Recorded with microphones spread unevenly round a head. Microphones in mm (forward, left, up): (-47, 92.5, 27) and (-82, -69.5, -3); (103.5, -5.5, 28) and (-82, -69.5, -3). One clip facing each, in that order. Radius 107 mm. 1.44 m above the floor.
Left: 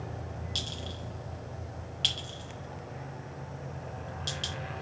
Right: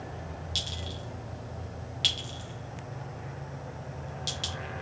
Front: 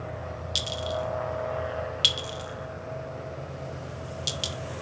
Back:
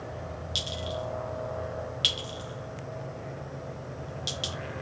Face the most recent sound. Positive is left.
turn(degrees=-10)